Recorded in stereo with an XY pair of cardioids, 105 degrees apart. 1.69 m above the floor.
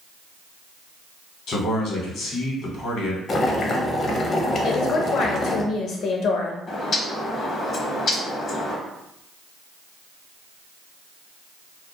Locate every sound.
1.5 s a man speaking: 65° left, 0.9 m
3.3 s boiling: 45° left, 0.6 m
4.6 s a woman speaking: 70° left, 0.6 m
6.7 s a bird: 55° left, 0.7 m